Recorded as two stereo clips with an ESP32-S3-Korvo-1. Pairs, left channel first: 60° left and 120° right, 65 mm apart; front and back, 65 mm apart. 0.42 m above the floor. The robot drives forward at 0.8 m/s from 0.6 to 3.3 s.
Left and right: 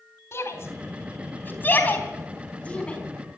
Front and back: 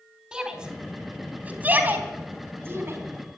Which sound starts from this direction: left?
A shout, at 0.3 s.